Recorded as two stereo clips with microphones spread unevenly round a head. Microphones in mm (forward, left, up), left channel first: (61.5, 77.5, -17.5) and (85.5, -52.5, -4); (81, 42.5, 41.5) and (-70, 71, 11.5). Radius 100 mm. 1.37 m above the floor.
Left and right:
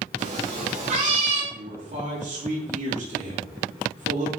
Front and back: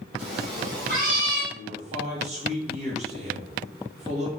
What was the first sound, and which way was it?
A cat meowing, 125° right.